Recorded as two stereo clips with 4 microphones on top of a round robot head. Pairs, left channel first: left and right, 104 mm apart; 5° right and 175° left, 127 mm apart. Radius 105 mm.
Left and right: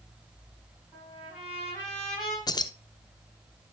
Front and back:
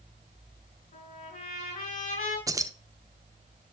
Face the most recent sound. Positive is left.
turn(degrees=125)